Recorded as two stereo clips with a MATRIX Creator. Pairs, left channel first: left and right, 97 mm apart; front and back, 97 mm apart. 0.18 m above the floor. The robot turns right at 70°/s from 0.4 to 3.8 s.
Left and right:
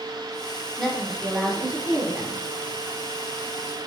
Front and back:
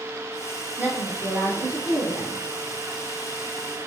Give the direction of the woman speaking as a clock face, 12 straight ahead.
6 o'clock.